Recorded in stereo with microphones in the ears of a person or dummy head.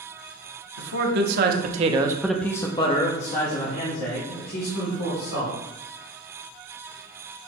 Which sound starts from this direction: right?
A man speaking, at 0.8 s.